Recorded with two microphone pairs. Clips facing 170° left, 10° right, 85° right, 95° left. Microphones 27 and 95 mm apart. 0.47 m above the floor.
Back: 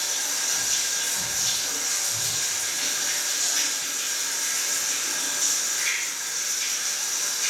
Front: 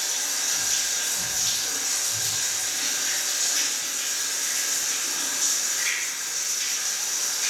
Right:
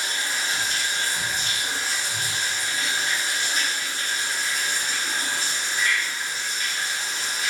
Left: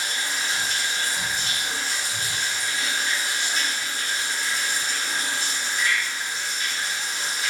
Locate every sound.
0.0 s running water: 95° right, 1.1 m